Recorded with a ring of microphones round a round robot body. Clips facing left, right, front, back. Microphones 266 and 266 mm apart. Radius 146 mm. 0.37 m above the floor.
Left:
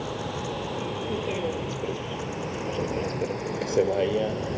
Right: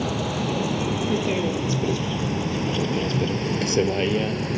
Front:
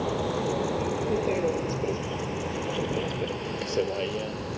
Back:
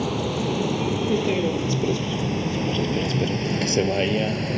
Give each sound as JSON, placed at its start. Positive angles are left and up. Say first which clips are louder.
{"t": 0.0, "sound": "a vehicle", "louder": "right 6 dB, back 3 dB", "azimuth_deg": -125}